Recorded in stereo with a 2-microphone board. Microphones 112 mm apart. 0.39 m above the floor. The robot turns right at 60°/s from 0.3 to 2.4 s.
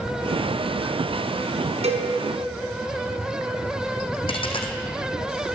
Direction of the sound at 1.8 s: 75° right (ahead or behind).